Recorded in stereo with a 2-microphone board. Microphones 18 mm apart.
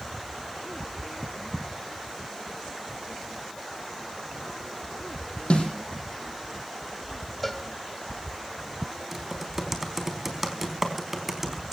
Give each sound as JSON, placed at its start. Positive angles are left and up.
{"t": 5.5, "sound": "a snare drum", "side_deg": 75, "distance_m": 7.0}
{"t": 7.4, "sound": "a cowbell", "side_deg": 5, "distance_m": 2.0}
{"t": 9.1, "sound": "typing on a keyboard", "side_deg": -15, "distance_m": 4.0}